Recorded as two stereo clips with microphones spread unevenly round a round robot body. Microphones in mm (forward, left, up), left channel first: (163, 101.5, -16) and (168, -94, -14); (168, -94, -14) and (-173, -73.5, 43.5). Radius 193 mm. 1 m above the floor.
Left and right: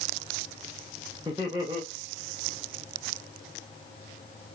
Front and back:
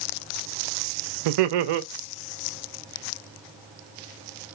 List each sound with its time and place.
1.2 s laughter: 170° right, 0.6 m